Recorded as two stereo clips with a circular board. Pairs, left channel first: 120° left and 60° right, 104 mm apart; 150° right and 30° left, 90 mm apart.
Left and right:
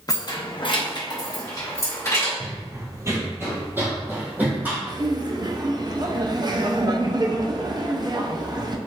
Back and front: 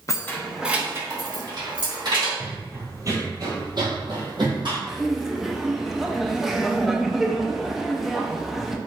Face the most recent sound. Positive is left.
turn(degrees=-55)